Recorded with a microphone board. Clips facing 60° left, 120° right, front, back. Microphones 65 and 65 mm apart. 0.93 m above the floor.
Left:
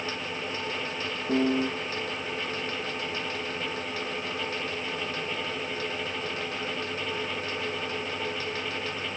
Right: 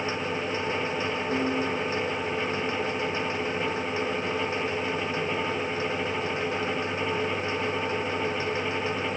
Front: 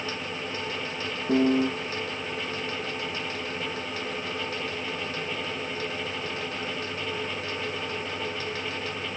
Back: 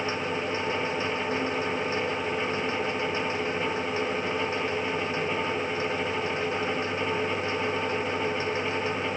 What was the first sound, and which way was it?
A piano, 5° right.